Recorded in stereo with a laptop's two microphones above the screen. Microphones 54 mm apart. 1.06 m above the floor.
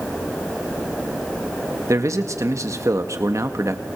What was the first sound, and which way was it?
A man speaking, 70° right (ahead or behind).